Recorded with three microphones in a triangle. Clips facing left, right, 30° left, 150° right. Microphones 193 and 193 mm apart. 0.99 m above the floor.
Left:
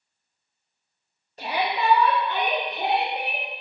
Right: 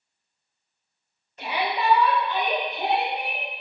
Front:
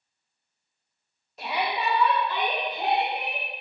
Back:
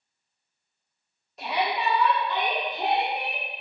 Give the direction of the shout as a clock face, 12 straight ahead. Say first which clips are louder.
Left 1 dB, back 1 dB; 8 o'clock.